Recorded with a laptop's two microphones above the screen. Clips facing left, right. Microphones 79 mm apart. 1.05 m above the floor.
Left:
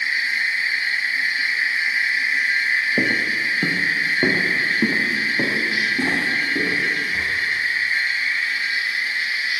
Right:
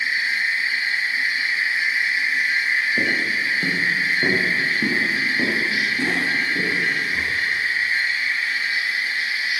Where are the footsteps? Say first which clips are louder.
Left 1 dB; 30° left (ahead or behind), 1.4 m; by 7.3 s 20° left (ahead or behind), 5 m.